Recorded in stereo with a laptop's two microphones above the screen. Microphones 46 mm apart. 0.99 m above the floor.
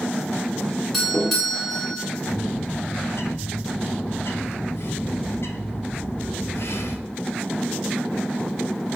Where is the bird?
65° left (ahead or behind), 0.5 m.